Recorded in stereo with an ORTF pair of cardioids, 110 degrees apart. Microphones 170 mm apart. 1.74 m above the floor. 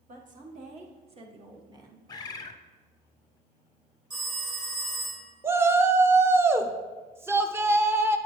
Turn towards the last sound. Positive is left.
turn(degrees=-15)